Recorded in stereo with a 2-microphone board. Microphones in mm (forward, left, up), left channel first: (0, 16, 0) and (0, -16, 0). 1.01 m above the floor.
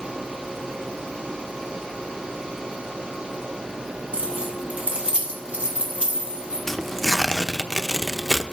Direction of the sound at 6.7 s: 10° left (ahead or behind).